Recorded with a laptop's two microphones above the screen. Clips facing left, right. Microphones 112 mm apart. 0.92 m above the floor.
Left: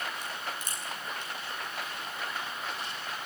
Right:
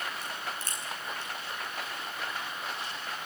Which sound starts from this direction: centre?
A crack, at 0.2 s.